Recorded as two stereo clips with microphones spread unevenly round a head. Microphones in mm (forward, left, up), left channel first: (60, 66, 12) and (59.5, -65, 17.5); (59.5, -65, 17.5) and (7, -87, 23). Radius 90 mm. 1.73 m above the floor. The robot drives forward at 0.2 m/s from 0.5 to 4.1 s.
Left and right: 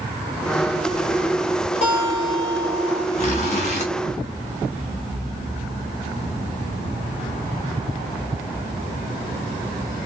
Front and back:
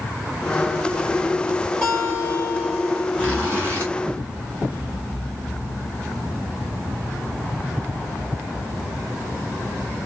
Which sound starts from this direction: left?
A guitar, at 1.8 s.